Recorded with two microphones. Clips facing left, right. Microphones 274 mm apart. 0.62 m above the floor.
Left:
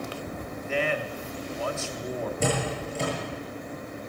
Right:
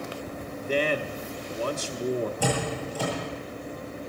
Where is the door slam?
25° left (ahead or behind), 8 m.